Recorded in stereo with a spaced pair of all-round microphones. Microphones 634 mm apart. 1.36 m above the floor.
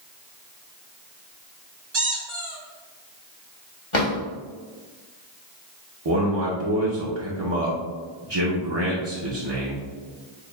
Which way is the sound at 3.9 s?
50° left (ahead or behind).